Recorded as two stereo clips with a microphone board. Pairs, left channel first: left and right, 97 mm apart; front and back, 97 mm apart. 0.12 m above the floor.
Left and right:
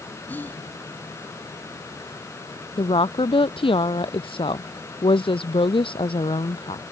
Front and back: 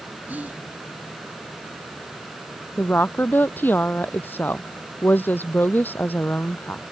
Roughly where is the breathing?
I don't hear breathing.